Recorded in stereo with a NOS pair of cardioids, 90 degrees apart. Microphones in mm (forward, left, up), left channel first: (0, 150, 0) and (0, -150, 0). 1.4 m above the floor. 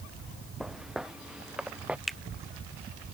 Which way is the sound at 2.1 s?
Straight ahead.